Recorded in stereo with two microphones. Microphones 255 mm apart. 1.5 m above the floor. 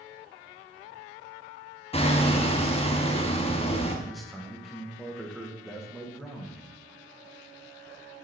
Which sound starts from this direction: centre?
A man speaking, at 4.0 s.